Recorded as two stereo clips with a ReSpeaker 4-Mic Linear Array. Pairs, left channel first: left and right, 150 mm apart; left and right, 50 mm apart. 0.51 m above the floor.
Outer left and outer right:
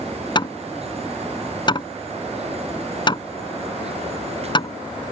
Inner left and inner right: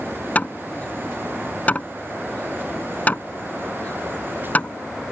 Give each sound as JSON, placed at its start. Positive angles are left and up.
{"t": 0.3, "sound": "hammering", "side_deg": 30}